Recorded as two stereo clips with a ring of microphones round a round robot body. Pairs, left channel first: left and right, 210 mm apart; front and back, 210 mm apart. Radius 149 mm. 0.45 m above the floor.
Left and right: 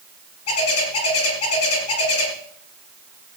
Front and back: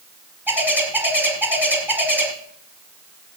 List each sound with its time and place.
0.5 s a bird: 100° left, 5 m